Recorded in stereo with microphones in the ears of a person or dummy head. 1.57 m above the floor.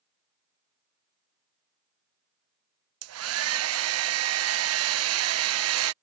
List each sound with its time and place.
3.0 s a hair dryer: 80° right